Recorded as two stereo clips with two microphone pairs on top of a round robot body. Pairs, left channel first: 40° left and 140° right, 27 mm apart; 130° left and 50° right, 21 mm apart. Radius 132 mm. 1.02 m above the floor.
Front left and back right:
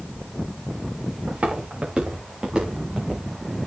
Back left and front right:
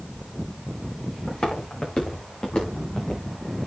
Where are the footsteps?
165° left, 6 m; by 3.2 s 145° left, 6.5 m.